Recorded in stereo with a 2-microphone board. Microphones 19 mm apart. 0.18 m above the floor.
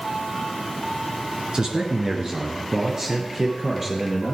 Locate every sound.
1.5 s a man speaking: 45° right (ahead or behind), 2.5 m; by 4.3 s 30° right (ahead or behind), 3.5 m